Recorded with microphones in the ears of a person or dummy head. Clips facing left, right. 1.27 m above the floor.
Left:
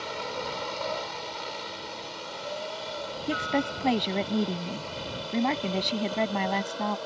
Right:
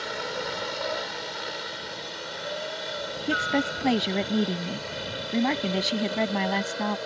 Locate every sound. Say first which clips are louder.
0.0 s a helicopter: right 2 dB; 10° right (ahead or behind); by 7.1 s 20° right (ahead or behind)
3.3 s a woman speaking: right 1 dB; 15° right (ahead or behind)